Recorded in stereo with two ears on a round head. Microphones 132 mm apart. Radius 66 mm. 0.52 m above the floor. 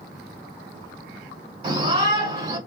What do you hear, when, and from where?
1.6 s a shout: 40° right (ahead or behind), 2.0 m